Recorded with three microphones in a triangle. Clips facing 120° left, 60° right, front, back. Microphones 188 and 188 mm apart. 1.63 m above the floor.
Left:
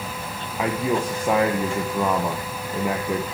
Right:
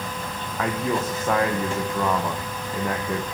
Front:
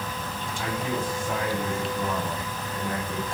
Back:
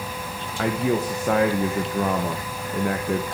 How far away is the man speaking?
About 1.5 m.